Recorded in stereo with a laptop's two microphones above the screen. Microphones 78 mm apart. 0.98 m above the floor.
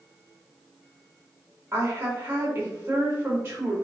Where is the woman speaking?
30° right (ahead or behind), 1.7 m.